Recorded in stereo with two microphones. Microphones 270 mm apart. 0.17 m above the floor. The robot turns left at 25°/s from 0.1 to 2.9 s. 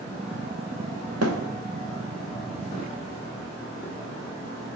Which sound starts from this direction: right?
A thud, at 1.2 s.